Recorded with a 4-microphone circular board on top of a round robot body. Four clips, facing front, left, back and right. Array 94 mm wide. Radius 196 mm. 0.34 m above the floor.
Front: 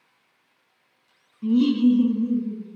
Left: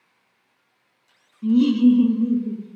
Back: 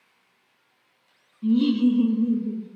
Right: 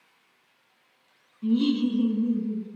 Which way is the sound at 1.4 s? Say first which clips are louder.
Left 8 dB, front 1 dB; 10° left.